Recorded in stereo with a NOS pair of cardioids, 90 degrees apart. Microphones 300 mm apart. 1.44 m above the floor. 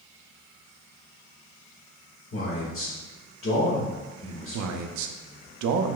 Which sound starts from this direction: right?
A man speaking, at 4.5 s.